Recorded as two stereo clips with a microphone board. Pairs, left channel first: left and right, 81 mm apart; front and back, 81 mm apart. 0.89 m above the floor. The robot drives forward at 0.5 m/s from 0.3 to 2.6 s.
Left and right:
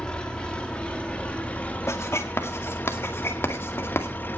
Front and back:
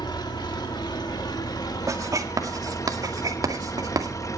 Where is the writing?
140° left, 1.8 m; by 4.1 s 145° left, 2 m.